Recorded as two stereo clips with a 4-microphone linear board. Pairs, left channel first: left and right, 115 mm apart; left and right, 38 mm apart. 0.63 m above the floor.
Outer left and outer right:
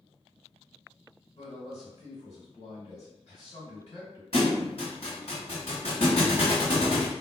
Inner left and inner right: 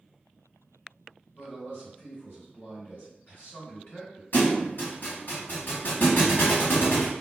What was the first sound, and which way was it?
A man speaking, 65° left (ahead or behind).